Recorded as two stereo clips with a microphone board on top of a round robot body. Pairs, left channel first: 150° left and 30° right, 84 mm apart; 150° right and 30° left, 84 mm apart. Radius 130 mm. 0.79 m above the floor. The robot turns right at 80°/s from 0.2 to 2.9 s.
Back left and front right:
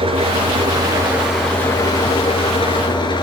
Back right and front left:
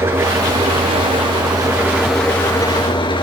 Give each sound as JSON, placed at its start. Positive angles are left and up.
{"t": 0.0, "sound": "an engine running", "azimuth_deg": -35, "distance_m": 5.0}